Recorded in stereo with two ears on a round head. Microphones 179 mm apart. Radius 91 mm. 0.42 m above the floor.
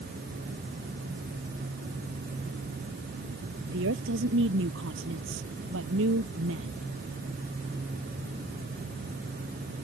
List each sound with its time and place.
3.7 s a woman speaking: 70° right (ahead or behind); by 6.8 s 75° right (ahead or behind)